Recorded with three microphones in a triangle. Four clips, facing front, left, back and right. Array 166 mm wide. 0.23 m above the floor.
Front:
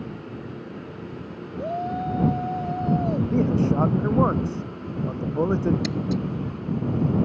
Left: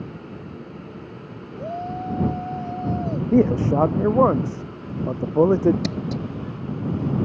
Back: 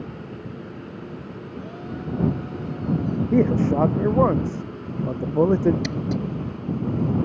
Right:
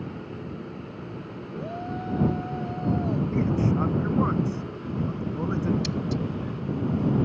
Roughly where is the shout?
Ahead left.